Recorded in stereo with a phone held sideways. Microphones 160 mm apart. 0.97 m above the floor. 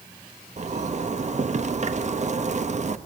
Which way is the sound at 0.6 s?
45° right (ahead or behind).